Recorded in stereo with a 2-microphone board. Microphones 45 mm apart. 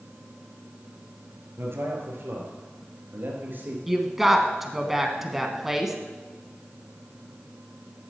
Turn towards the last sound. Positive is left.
turn(degrees=-5)  # may be behind; listen again after turning